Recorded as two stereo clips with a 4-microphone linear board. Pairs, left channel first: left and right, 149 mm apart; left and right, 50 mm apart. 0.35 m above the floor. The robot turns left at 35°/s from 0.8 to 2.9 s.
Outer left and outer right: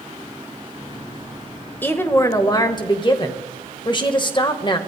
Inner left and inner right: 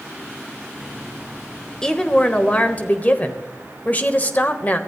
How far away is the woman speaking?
About 1.2 m.